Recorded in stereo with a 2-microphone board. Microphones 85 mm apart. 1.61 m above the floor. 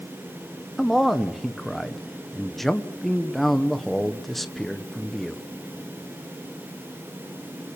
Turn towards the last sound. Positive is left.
turn(degrees=0)  # may be behind; listen again after turning